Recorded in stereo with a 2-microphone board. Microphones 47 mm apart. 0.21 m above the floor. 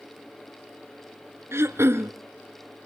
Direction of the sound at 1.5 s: 65° right (ahead or behind).